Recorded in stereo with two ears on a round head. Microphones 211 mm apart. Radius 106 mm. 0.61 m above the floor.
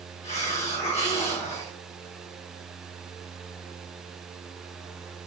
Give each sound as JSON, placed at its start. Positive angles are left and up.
{"t": 0.2, "sound": "a hiss", "side_deg": 30, "distance_m": 1.4}